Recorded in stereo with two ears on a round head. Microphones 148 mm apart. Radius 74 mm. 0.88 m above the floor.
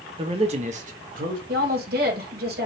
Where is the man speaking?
30° right (ahead or behind), 1.2 m; by 1.4 s 55° right (ahead or behind), 1.6 m.